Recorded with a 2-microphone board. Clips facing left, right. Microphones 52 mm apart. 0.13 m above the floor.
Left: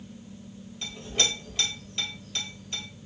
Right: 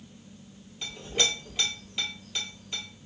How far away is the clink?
About 1.9 m.